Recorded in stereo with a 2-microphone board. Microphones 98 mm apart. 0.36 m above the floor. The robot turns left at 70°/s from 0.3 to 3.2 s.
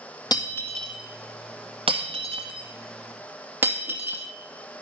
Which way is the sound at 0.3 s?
40° left (ahead or behind).